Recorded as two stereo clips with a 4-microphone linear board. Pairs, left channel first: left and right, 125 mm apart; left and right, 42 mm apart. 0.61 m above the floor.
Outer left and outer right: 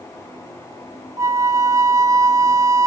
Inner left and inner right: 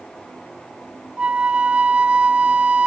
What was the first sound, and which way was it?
A flute, 25° right (ahead or behind).